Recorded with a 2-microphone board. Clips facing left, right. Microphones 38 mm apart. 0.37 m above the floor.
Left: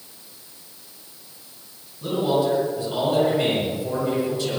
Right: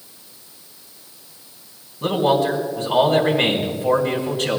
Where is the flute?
No flute in this recording.